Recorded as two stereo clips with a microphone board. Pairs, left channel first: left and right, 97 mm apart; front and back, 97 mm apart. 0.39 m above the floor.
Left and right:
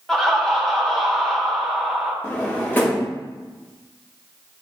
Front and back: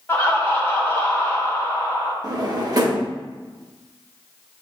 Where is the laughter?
5° left, 0.9 m.